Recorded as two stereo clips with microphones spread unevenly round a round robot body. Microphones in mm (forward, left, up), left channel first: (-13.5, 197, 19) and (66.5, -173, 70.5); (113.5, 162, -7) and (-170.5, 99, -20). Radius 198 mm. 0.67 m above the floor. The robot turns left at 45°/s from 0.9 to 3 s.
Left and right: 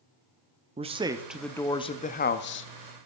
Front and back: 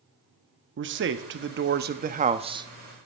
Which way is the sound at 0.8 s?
155° right.